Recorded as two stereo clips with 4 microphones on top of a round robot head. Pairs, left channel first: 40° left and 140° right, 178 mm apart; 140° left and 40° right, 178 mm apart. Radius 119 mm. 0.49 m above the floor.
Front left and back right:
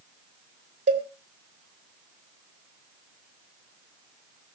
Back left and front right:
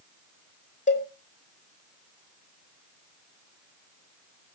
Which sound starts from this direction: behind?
A cowbell, at 0.9 s.